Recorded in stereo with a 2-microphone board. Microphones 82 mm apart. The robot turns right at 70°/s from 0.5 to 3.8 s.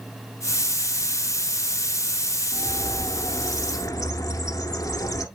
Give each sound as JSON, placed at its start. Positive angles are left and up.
{"t": 2.5, "sound": "a bird", "azimuth_deg": 40, "distance_m": 0.8}